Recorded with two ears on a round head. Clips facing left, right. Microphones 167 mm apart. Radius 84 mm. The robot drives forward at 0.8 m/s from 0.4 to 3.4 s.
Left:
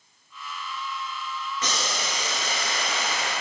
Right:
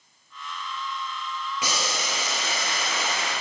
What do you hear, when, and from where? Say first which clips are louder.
1.6 s boiling: right 1 dB; 10° right (ahead or behind), 1.4 m; by 3.3 s 5° right (ahead or behind), 2.5 m